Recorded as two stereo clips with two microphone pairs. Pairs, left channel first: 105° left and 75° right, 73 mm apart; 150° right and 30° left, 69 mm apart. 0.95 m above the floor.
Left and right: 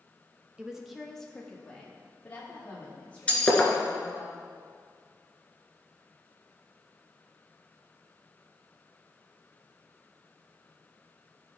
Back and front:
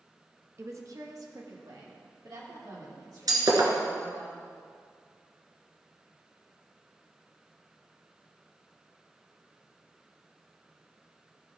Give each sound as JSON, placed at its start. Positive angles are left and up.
{"t": 0.6, "sound": "a woman speaking", "azimuth_deg": 0, "distance_m": 1.1}
{"t": 3.3, "sound": "breaking glass", "azimuth_deg": 35, "distance_m": 1.9}